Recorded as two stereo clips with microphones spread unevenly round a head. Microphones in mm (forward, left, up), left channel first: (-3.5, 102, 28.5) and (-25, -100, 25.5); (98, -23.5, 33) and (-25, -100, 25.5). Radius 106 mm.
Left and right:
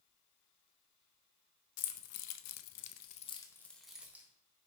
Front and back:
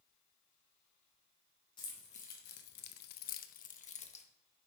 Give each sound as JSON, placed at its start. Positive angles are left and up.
{"t": 1.8, "sound": "keys jangling", "azimuth_deg": 100, "distance_m": 0.8}